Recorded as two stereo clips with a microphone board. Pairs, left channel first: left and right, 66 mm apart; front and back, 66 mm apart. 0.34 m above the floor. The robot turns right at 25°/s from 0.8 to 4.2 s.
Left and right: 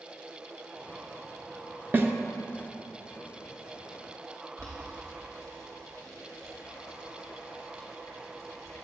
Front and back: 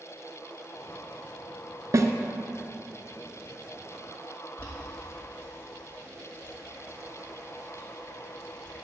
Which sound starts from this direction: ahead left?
Boiling, at 4.6 s.